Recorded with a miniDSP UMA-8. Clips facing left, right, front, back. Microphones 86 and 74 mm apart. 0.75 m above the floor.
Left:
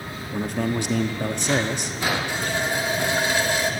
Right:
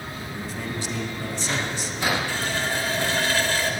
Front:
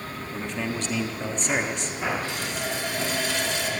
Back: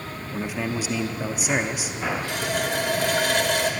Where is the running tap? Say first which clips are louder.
Left 1 dB, back 4 dB; 160° left, 2 m.